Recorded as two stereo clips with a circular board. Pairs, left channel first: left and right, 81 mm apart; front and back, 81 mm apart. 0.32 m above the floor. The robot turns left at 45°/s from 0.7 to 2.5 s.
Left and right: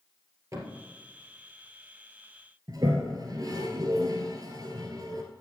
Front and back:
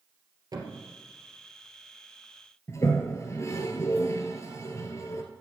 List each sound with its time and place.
0.5 s a thud: 140° right, 2.5 m; by 0.8 s 145° right, 2.5 m
2.7 s a toilet flushing: 55° right, 1.4 m